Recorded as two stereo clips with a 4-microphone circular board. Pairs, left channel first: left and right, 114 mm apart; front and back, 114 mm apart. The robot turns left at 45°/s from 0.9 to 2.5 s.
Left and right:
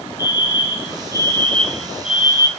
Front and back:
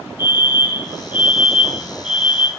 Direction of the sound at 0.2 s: 45° left.